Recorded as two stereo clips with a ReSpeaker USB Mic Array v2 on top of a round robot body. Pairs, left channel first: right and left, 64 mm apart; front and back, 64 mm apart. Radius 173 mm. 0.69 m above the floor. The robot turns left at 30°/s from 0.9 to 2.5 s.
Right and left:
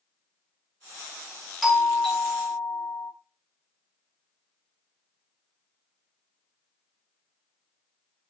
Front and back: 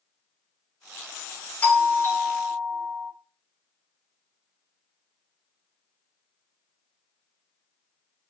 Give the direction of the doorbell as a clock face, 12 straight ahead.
12 o'clock.